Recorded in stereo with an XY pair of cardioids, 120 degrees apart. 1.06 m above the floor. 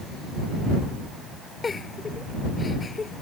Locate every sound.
1.6 s a giggle: 25° left